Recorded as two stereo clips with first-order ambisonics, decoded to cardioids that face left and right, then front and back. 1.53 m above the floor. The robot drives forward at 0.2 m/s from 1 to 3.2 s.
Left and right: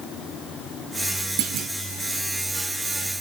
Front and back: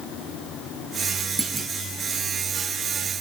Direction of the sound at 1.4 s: 110° right.